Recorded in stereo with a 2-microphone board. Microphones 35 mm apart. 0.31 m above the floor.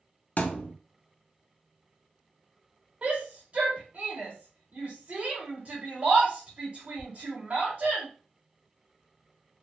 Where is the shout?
30° right (ahead or behind), 1.0 m.